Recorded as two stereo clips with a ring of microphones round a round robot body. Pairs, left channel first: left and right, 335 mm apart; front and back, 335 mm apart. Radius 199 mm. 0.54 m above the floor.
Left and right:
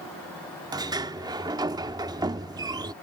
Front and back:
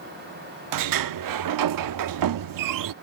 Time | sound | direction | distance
0.7 | a sliding door | 170° right | ?